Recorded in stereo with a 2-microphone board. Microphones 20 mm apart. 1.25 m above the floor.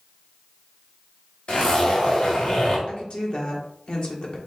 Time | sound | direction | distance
1.5 | a zipper | 70° left (ahead or behind) | 2.5 m
2.9 | a woman speaking | 50° left (ahead or behind) | 1.3 m